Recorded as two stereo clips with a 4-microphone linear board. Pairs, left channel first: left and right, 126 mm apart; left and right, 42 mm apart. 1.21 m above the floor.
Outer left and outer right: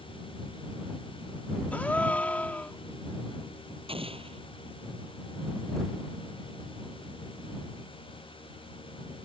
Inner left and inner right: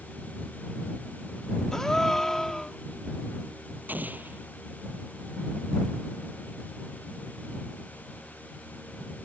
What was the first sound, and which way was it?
A gasp, 10° left (ahead or behind).